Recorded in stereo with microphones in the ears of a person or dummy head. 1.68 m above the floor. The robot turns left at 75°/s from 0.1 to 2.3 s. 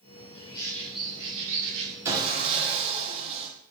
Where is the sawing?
15° right (ahead or behind), 1.2 m; by 3.5 s 30° right (ahead or behind), 1.2 m.